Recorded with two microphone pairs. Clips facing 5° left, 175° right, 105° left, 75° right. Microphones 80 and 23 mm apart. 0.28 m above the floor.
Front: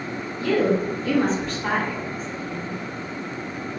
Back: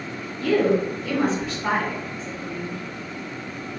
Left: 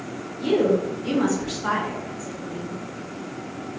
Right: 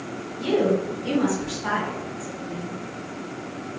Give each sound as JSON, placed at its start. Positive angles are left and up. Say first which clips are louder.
{"t": 0.4, "sound": "a woman speaking", "louder": "back 1 dB, left 1 dB", "azimuth_deg": -60, "distance_m": 1.1}